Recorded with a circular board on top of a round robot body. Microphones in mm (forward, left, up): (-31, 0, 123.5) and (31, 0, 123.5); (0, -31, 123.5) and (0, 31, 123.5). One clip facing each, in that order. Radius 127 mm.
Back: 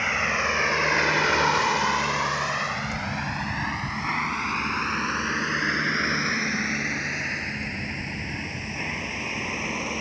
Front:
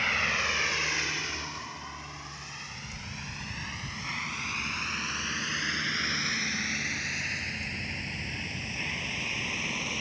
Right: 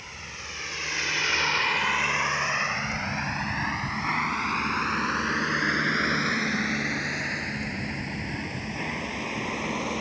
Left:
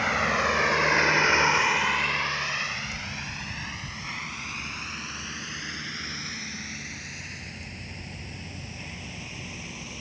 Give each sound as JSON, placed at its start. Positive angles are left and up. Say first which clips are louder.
{"t": 0.0, "sound": "a vehicle", "louder": "back 4 dB, left 17 dB", "azimuth_deg": 105}